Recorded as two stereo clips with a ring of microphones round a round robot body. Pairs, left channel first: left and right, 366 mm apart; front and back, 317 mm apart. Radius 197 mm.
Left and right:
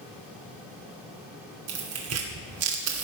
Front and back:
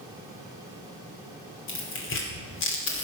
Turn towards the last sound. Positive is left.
turn(degrees=-45)